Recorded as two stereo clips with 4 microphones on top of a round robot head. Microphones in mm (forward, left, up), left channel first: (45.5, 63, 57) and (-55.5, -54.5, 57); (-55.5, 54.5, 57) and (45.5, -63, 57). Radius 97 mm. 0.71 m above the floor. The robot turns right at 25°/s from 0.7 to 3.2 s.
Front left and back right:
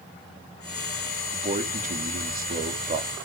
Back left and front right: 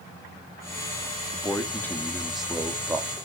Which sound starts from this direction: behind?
A man speaking, at 1.3 s.